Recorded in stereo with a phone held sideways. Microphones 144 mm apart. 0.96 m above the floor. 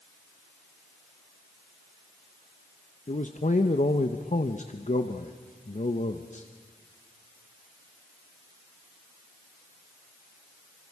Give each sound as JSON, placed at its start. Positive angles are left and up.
{"t": 3.1, "sound": "a man speaking", "side_deg": 55, "distance_m": 0.8}